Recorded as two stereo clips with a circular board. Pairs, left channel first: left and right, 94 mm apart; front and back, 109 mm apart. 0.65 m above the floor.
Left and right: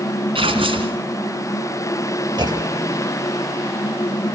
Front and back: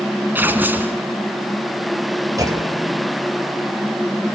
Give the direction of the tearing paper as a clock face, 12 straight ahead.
4 o'clock.